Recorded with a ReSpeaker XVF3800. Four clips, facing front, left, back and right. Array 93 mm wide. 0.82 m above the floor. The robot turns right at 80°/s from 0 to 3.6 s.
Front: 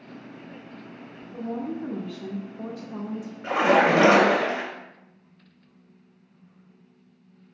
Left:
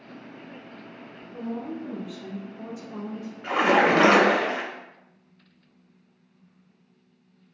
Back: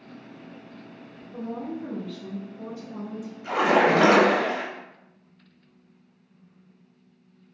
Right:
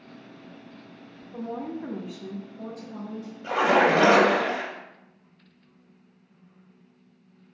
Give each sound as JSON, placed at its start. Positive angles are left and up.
{"t": 1.3, "sound": "a woman speaking", "azimuth_deg": -95, "distance_m": 0.7}
{"t": 3.4, "sound": "a splash", "azimuth_deg": 55, "distance_m": 1.7}